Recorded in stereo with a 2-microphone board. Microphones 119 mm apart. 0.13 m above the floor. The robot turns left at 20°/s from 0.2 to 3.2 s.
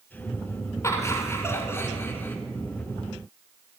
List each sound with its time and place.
0.8 s laughter: 25° left (ahead or behind), 1.3 m; by 2.4 s 15° left (ahead or behind), 1.3 m